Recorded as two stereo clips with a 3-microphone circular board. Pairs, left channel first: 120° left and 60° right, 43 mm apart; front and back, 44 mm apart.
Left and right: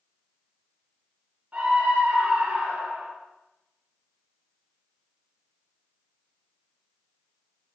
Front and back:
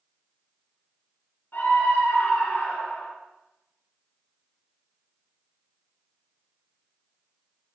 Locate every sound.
1.5 s a scream: 10° right, 3 m; by 3.1 s 30° right, 3 m